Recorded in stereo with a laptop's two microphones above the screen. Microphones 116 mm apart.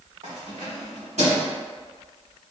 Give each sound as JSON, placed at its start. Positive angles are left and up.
{"t": 0.2, "sound": "keys jangling", "side_deg": -70, "distance_m": 1.8}